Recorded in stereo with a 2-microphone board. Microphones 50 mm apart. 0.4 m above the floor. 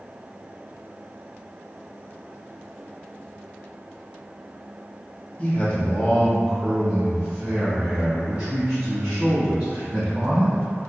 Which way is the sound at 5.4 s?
30° left (ahead or behind).